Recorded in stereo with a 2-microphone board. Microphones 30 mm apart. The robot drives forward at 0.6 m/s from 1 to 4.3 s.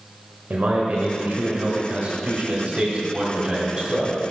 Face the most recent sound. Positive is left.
turn(degrees=-25)  # may be behind; listen again after turning